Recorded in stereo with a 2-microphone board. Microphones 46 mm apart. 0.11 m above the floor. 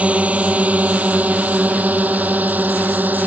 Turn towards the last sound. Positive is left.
turn(degrees=-40)  # may be behind; listen again after turning